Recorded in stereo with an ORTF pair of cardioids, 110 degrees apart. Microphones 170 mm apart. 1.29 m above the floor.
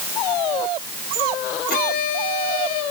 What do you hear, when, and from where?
1.7 s a violin: 60° left, 4 m